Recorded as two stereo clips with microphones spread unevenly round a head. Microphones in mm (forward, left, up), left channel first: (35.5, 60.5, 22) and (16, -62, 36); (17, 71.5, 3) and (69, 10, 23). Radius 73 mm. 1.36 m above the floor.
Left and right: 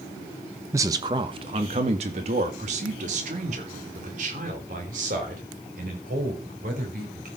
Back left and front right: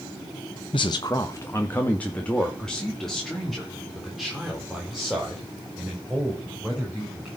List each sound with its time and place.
0.7 s a man speaking: 170° right, 0.8 m; by 7.3 s 135° right, 5.5 m